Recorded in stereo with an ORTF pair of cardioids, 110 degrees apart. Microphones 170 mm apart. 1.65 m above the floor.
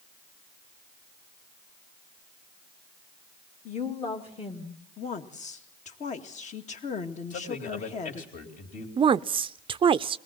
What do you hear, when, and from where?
3.6 s a woman speaking: 45° left, 2.5 m; by 4.8 s 30° left, 2.5 m
5.0 s a woman speaking: 45° left, 2.0 m
7.3 s a man speaking: 50° left, 3.5 m
9.0 s a woman speaking: 30° right, 0.5 m